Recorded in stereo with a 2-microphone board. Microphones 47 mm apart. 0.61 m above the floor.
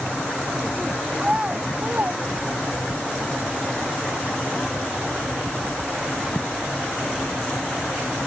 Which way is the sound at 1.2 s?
15° right (ahead or behind).